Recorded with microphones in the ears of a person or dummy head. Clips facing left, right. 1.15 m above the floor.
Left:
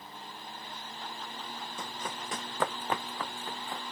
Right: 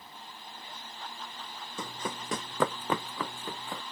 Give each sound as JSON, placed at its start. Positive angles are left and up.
{"t": 1.8, "sound": "running footsteps", "side_deg": -70}